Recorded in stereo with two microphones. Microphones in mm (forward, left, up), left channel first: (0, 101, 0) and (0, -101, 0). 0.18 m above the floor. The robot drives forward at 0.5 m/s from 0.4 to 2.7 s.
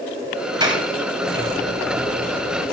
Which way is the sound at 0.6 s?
20° right (ahead or behind).